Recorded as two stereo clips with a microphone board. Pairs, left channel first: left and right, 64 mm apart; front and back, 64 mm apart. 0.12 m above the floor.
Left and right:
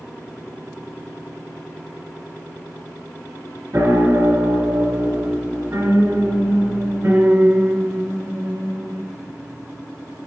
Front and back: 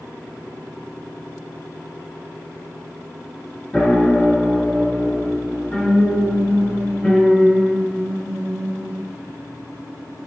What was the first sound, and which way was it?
A piano, 60° right.